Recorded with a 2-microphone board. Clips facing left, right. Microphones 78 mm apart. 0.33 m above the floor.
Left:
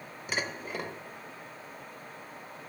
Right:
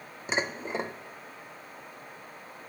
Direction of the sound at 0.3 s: 25° right (ahead or behind).